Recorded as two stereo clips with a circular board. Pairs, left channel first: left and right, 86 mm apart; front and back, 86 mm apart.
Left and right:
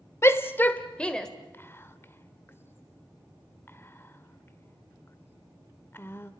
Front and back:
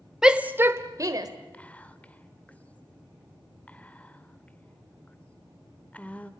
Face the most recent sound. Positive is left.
turn(degrees=55)